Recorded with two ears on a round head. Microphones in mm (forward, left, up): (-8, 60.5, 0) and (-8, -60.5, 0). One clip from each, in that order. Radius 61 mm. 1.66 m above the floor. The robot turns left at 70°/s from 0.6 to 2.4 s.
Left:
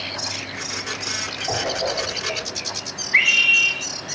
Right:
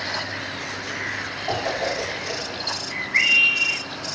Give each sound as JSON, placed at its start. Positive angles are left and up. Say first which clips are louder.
{"t": 1.5, "sound": "a whoosh", "louder": "even", "side_deg": -75, "distance_m": 5.0}
{"t": 3.1, "sound": "a scream", "louder": "left 2 dB", "side_deg": 55, "distance_m": 2.5}